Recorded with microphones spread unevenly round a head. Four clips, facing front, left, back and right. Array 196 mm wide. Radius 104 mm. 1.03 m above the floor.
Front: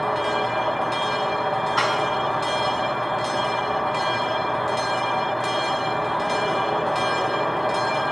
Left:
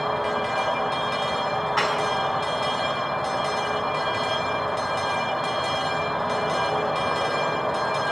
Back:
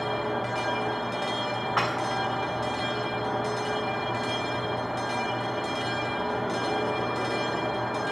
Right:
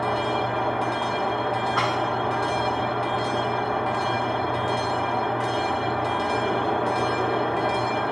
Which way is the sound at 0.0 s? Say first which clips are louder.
Right 1 dB, front 6 dB; 90° right.